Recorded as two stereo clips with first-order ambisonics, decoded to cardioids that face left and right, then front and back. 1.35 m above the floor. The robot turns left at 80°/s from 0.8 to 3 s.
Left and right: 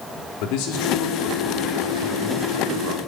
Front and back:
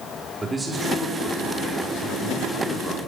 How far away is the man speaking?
About 4.5 m.